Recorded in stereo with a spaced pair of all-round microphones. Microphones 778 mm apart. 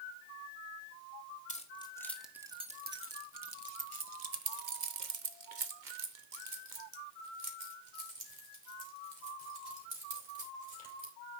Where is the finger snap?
No finger snap in this recording.